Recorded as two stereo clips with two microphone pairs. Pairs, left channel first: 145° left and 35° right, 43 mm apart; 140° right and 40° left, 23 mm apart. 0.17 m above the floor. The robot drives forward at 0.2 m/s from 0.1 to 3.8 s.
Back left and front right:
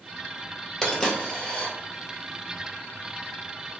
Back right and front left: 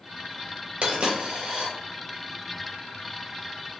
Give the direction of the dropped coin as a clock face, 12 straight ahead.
10 o'clock.